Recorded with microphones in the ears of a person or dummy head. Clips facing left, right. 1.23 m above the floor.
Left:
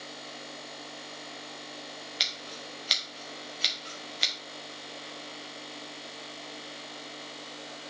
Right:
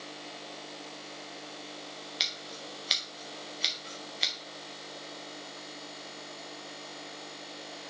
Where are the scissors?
Centre (ahead or behind), 1.1 m.